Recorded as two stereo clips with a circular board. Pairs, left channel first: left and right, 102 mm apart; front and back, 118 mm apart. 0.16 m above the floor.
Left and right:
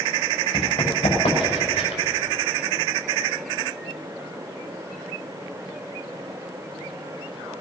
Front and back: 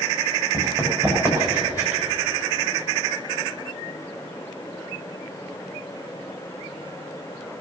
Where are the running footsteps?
115° left, 5.5 m; by 2.0 s 105° left, 5 m.